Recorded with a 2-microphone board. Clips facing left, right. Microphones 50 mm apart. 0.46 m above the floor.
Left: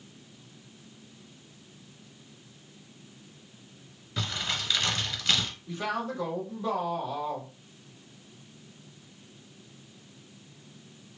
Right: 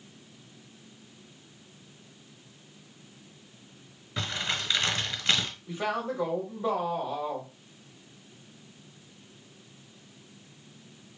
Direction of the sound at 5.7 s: 20° right (ahead or behind).